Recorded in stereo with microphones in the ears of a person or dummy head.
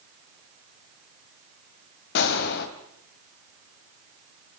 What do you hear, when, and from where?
2.1 s a gunshot: 65° left (ahead or behind), 2.5 m